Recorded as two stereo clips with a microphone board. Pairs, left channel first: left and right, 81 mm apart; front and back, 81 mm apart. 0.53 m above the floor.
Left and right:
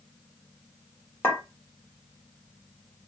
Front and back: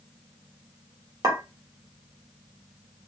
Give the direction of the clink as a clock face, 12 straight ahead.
7 o'clock.